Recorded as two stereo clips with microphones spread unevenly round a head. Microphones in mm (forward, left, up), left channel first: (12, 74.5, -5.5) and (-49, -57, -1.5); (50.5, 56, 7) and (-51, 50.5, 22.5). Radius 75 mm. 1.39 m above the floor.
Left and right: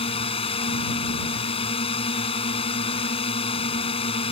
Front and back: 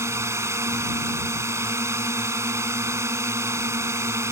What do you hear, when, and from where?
0.0 s a drone: 120° left